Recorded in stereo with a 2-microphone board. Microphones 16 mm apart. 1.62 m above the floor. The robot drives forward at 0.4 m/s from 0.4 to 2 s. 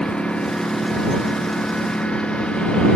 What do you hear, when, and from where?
0.0 s a lawn mower: 85° left